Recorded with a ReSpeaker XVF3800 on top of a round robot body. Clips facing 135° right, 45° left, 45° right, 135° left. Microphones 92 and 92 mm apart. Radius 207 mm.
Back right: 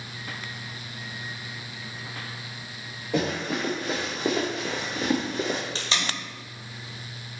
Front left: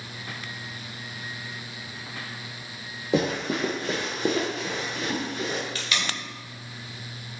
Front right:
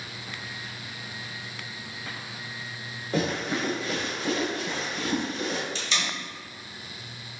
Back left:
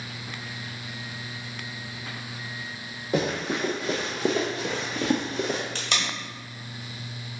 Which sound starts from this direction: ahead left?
Running footsteps, at 3.1 s.